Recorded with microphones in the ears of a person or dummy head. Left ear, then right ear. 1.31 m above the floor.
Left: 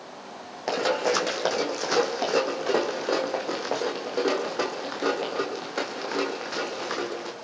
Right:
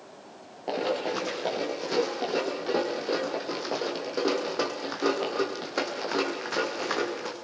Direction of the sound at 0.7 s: 60° left (ahead or behind).